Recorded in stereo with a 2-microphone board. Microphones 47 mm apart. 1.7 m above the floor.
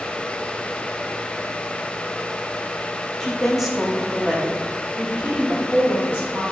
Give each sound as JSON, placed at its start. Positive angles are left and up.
{"t": 3.2, "sound": "a woman speaking", "side_deg": 10, "distance_m": 0.7}